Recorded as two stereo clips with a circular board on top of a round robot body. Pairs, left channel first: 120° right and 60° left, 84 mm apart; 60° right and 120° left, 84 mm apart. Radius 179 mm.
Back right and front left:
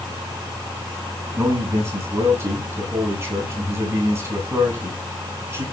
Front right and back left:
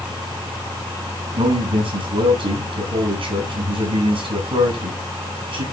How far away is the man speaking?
About 7 m.